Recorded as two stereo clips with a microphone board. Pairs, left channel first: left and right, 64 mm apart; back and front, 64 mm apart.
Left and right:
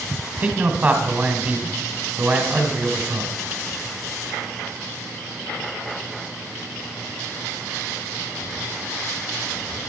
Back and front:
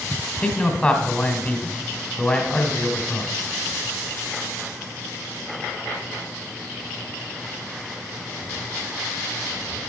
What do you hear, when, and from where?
0.4 s a man speaking: 130° right, 1.5 m